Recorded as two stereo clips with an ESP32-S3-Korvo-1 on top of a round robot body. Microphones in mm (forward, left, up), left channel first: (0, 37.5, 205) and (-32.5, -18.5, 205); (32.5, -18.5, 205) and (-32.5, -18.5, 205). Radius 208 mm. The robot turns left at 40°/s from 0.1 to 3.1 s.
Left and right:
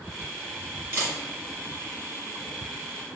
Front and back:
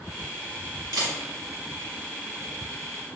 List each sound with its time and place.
0.9 s a camera shutter: 175° right, 1.9 m; by 1.1 s 175° left, 1.9 m